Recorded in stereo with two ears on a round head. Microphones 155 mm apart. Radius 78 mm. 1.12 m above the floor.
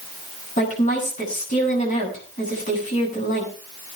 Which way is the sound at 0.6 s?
45° left (ahead or behind).